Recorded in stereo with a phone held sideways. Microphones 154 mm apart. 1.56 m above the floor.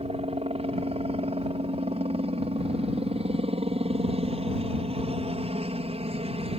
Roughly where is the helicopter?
Right.